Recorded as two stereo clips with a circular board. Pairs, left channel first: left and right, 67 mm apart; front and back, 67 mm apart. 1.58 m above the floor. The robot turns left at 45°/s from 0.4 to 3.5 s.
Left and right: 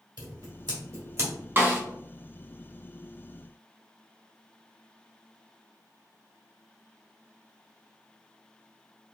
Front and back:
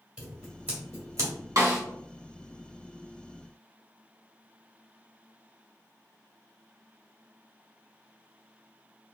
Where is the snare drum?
145° right, 1.0 m; by 1.8 s 160° right, 1.0 m.